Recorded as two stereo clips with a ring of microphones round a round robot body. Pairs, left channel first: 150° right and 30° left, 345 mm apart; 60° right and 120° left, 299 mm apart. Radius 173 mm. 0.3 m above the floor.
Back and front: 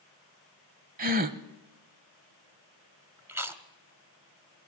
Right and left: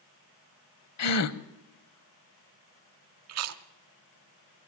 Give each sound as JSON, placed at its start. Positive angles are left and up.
{"t": 1.0, "sound": "a gasp", "azimuth_deg": -35, "distance_m": 0.9}
{"t": 3.3, "sound": "chewing", "azimuth_deg": 110, "distance_m": 0.9}